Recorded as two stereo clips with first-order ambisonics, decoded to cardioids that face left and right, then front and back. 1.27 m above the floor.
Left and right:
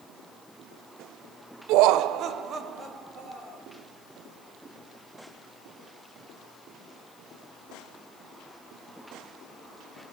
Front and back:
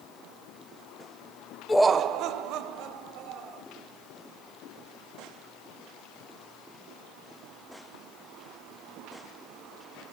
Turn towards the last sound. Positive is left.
turn(degrees=-160)